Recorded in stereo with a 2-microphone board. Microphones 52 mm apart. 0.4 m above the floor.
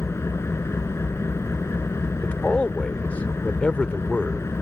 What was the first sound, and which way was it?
An engine running, 60° left (ahead or behind).